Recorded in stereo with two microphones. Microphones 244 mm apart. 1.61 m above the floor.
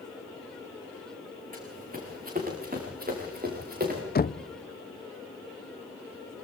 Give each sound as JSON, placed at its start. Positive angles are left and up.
{"t": 1.5, "sound": "running footsteps", "side_deg": -35, "distance_m": 6.5}
{"t": 4.2, "sound": "knocking", "side_deg": 40, "distance_m": 0.5}